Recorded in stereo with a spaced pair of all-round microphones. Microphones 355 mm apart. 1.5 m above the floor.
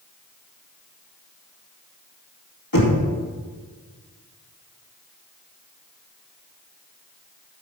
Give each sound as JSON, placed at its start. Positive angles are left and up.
{"t": 2.7, "sound": "knocking", "side_deg": 65, "distance_m": 2.5}